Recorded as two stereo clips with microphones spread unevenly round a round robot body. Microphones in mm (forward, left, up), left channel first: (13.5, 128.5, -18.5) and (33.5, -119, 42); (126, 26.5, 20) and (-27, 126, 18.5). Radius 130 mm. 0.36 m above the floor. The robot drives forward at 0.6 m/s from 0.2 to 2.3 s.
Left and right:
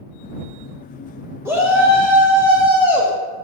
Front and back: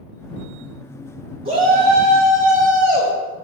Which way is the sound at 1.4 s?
Straight behind.